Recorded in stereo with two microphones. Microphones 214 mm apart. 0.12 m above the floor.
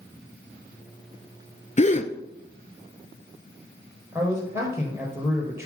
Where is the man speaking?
10° right (ahead or behind), 3 m.